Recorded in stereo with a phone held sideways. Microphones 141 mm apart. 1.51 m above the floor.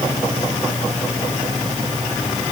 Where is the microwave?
I don't hear a microwave.